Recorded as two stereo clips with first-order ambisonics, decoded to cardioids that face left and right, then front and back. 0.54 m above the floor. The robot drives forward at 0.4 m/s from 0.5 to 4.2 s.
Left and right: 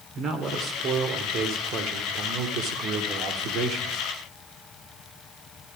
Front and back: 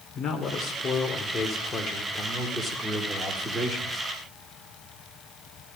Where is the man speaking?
50° right, 1.8 m; by 4.0 s 110° right, 1.6 m.